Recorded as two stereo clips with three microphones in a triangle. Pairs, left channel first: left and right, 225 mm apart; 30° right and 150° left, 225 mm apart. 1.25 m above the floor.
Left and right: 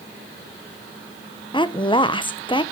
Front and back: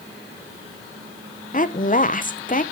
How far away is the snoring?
I don't hear snoring.